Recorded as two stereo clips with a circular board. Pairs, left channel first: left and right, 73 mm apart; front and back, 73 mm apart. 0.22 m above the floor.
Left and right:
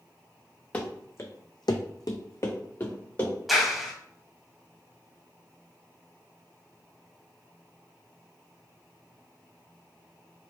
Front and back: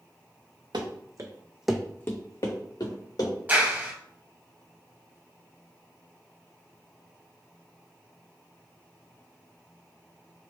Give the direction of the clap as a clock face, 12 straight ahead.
6 o'clock.